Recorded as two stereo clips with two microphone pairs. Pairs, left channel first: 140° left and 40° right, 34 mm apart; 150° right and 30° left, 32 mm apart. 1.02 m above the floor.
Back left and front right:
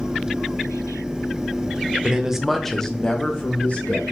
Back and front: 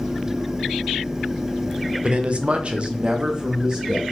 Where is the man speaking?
Straight ahead, 0.6 m; by 4.0 s 95° left, 1.3 m.